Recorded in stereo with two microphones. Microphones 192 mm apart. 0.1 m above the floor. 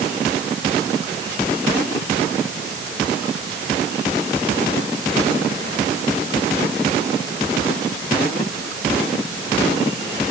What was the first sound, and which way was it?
Only background noise.